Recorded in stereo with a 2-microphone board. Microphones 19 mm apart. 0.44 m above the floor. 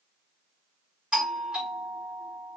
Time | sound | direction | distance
1.1 | a doorbell | 50° right (ahead or behind) | 3 m